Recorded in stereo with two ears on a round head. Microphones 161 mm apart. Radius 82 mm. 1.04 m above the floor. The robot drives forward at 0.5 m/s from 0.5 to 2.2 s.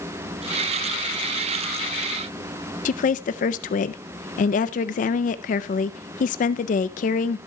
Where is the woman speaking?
45° left (ahead or behind), 0.5 m.